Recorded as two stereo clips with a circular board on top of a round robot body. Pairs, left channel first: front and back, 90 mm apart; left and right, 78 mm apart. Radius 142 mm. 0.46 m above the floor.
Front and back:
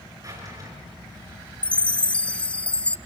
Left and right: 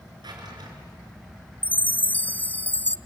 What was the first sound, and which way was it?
A drawer, 125° right.